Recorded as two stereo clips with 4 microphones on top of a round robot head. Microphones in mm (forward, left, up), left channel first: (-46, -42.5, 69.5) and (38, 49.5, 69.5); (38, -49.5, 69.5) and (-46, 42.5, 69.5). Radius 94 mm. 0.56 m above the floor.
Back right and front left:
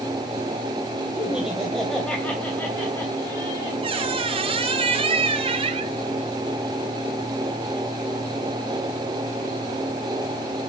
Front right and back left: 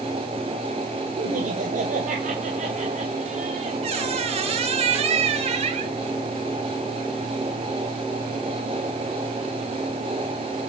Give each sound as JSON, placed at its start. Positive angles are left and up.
{"t": 1.2, "sound": "laughter", "azimuth_deg": 130, "distance_m": 2.5}
{"t": 3.8, "sound": "a squeak", "azimuth_deg": 95, "distance_m": 2.5}